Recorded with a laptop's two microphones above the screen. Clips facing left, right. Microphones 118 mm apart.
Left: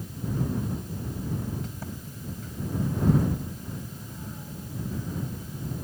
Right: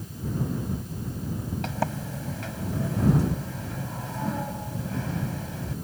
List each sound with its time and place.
1.6 s a sliding door: 80° right